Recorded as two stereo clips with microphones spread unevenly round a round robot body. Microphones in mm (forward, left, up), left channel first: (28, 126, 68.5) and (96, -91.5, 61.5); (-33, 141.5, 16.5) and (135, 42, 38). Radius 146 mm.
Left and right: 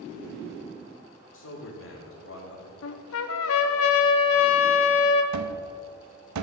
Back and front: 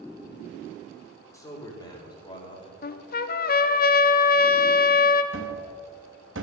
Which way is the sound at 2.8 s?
110° left.